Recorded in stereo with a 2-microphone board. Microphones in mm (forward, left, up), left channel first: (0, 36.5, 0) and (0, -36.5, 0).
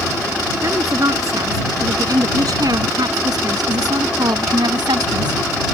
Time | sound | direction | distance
0.6 | a woman speaking | 50° right (ahead or behind) | ?